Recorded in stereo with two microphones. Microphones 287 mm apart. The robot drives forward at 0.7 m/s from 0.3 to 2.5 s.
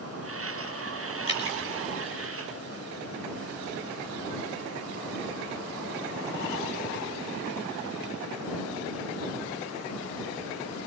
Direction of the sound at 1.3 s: 40° left (ahead or behind).